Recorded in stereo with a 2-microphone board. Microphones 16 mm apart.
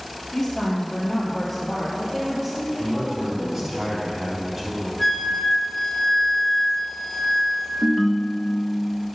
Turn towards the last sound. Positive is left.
turn(degrees=20)  # may be behind; listen again after turning